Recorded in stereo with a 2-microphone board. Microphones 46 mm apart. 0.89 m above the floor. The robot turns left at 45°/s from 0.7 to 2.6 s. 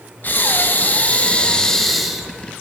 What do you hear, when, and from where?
0.2 s breathing: 60° left, 0.9 m; by 2.5 s 20° right, 0.9 m